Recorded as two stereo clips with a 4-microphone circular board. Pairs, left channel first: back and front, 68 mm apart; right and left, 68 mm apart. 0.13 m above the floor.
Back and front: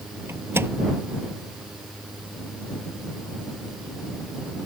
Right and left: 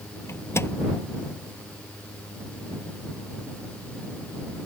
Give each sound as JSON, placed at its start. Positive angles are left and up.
{"t": 0.3, "sound": "a microwave", "azimuth_deg": -50}